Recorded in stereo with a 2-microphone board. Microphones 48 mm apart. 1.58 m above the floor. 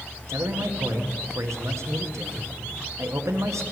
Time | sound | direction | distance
0.3 | a man speaking | 75° right (ahead or behind) | 1.1 m